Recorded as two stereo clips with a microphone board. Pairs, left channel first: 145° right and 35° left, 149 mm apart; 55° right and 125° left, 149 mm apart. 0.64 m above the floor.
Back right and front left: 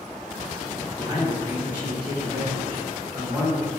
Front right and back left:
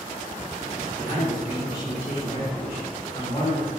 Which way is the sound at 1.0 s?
20° right.